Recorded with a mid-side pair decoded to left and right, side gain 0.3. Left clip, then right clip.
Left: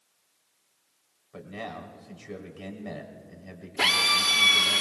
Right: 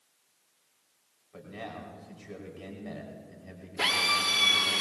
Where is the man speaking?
50° left, 3.5 m.